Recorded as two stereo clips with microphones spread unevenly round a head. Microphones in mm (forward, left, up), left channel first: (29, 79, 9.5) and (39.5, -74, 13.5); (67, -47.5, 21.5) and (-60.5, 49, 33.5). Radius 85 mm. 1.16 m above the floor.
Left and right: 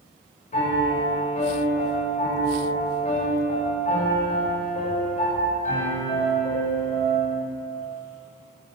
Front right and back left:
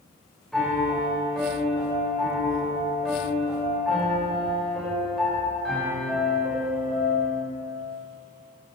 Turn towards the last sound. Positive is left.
turn(degrees=50)